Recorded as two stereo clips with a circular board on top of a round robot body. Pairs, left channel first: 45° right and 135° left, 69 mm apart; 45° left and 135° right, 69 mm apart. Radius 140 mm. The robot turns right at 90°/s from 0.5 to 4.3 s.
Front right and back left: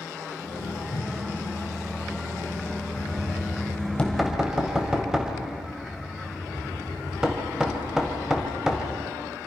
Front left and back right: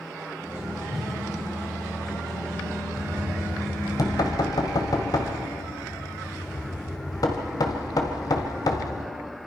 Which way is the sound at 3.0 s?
65° right.